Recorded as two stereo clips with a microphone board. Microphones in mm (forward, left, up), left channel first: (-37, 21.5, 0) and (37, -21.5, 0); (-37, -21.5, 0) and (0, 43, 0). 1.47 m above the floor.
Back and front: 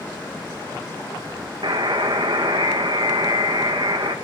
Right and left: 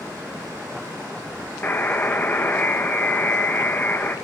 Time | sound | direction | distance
1.6 | a buzzer | 55° right | 1.9 m